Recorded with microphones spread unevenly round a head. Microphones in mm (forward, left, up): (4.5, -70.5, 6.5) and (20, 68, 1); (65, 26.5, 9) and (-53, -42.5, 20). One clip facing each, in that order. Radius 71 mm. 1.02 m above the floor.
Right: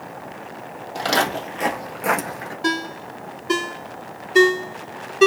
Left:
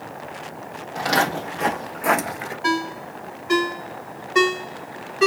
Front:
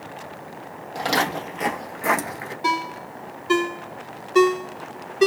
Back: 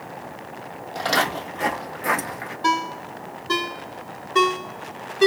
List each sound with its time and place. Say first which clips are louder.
0.9 s footsteps: even, even; 50° right, 1.8 m; by 2.5 s 50° left, 1.0 m
2.6 s a ringtone: left 1 dB, back 2 dB; 45° right, 1.4 m